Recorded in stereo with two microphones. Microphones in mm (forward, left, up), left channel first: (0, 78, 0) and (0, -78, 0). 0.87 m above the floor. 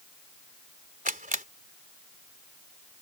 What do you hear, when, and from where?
1.1 s a camera shutter: 60° right (ahead or behind)